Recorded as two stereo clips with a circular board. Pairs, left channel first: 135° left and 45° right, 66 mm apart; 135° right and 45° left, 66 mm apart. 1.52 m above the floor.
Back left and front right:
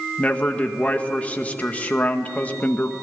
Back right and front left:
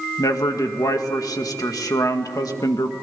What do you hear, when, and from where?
0.2 s a man speaking: 160° right, 2.0 m